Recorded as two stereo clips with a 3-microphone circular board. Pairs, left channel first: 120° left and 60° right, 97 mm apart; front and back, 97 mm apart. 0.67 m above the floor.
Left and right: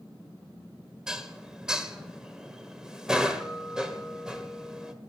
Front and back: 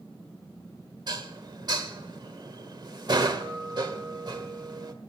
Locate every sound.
1.1 s dishes clattering: 140° right, 1.5 m